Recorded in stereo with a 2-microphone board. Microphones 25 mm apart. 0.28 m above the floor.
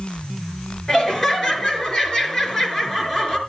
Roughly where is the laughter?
Centre.